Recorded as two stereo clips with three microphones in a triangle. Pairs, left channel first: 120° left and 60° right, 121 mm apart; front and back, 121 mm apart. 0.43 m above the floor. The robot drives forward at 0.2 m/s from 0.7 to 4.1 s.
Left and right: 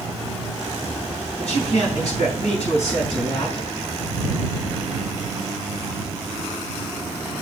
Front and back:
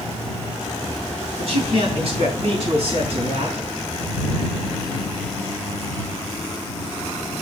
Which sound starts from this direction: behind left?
A man speaking, at 1.4 s.